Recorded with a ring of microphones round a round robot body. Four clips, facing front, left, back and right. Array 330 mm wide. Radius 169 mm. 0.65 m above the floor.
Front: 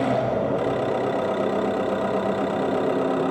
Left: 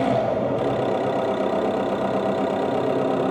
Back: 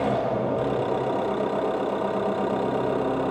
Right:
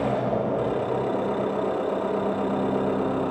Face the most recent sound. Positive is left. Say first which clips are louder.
# left 3 dB, front 2 dB
turn(degrees=65)